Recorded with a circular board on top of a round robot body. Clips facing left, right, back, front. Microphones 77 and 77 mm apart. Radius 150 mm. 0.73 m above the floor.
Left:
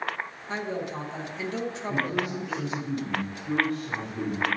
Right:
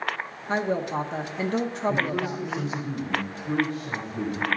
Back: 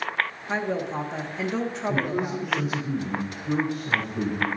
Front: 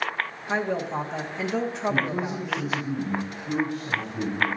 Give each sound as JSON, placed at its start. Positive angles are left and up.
{"t": 0.5, "sound": "a woman speaking", "azimuth_deg": -90, "distance_m": 0.9}
{"t": 1.9, "sound": "a man speaking", "azimuth_deg": -155, "distance_m": 2.5}